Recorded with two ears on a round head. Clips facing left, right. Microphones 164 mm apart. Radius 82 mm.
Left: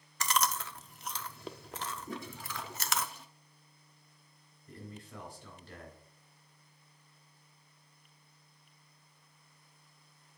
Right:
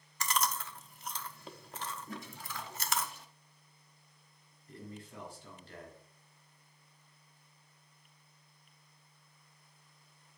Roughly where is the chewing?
Left.